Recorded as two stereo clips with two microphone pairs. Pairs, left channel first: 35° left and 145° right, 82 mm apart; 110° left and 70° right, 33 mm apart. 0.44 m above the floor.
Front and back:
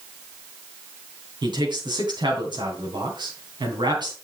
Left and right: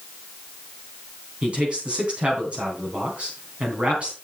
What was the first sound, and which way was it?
A man speaking, 120° right.